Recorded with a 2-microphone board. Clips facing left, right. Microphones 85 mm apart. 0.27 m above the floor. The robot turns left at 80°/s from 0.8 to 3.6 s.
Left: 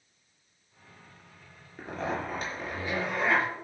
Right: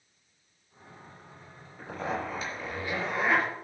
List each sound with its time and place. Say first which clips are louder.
1.8 s a zipper: even; 110° left, 4.5 m; by 3.5 s 25° right, 4.5 m